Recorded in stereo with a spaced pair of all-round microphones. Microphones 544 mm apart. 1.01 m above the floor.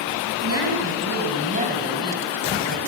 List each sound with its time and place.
0.4 s a woman speaking: 25° right (ahead or behind), 6 m; by 2.8 s centre (ahead or behind), 5 m